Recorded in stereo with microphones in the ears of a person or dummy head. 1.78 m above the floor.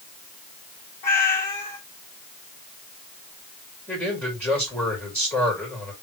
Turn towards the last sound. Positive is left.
turn(degrees=0)  # may be behind; listen again after turning